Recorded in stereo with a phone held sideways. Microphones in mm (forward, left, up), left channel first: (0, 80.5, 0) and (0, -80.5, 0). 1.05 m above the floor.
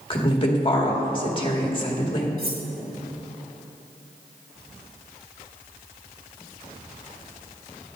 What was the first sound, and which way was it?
A woman speaking, 35° left (ahead or behind).